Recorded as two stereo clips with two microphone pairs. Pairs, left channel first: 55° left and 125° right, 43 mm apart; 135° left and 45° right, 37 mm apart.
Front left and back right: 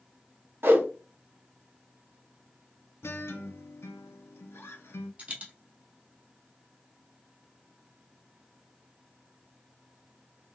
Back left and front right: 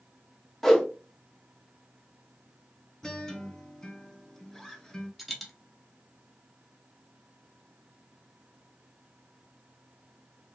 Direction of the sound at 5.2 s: 130° right.